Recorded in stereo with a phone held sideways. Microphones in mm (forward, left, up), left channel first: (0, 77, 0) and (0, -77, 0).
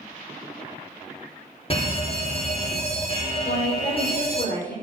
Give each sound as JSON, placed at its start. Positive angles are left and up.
{"t": 1.7, "sound": "a fire alarm", "side_deg": 40, "distance_m": 2.5}
{"t": 3.5, "sound": "a woman speaking", "side_deg": 85, "distance_m": 5.5}